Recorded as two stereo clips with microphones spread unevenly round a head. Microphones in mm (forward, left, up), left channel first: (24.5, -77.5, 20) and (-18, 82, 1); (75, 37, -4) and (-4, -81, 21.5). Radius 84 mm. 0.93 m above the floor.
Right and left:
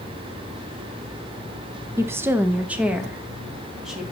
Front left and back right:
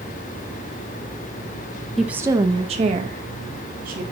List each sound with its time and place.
2.0 s a woman speaking: 115° left, 0.6 m; by 4.0 s 170° right, 2.0 m